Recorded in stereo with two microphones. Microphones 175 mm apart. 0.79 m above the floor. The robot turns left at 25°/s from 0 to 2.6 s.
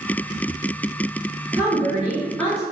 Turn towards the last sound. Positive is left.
turn(degrees=0)  # may be behind; listen again after turning